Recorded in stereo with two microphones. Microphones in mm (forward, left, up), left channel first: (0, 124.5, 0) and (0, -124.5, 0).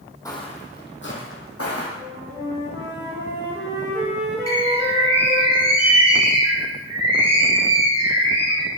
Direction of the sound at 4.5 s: 80° right.